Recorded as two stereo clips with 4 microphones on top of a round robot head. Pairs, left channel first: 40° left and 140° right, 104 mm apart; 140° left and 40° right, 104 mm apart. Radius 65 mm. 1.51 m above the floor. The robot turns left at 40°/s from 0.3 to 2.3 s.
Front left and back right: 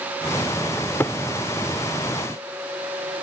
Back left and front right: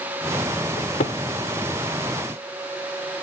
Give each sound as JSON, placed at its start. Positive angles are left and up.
{"t": 0.8, "sound": "a cupboard door", "azimuth_deg": 120}